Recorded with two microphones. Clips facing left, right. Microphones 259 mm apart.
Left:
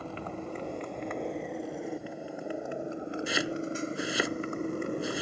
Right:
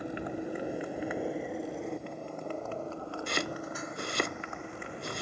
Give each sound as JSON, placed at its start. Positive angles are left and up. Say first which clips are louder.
{"t": 0.0, "sound": "a motorcycle", "louder": "right 3 dB", "side_deg": -15}
{"t": 3.3, "sound": "chopping", "louder": "left 4 dB", "side_deg": 5}